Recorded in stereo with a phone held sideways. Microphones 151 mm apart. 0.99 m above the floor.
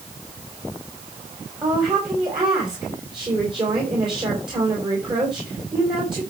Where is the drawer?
No drawer in this recording.